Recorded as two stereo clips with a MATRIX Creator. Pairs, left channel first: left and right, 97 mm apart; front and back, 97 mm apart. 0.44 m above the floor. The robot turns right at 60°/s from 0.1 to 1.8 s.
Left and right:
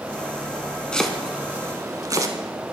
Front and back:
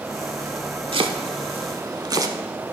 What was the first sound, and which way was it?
Chopping, 170° left.